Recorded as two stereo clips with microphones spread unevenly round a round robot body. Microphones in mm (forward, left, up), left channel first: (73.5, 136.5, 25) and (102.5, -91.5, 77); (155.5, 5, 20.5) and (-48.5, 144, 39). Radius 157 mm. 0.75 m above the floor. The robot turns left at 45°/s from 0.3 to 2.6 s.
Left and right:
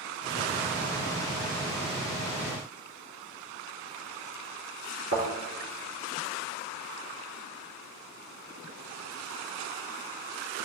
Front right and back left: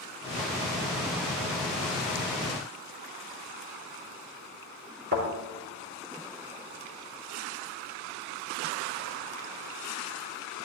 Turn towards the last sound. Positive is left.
turn(degrees=-150)